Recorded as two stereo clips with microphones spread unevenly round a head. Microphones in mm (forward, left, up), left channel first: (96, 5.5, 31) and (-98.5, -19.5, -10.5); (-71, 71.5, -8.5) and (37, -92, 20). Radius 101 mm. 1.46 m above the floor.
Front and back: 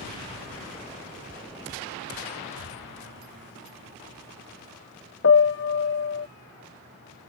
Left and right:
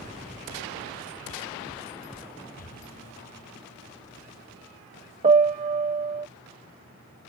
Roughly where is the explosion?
Behind.